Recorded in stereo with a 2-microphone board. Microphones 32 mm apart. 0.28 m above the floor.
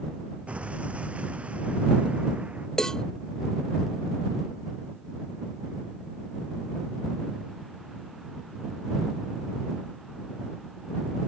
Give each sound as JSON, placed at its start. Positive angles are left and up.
{"t": 0.5, "sound": "an explosion", "side_deg": -45}
{"t": 2.8, "sound": "a cowbell", "side_deg": 15}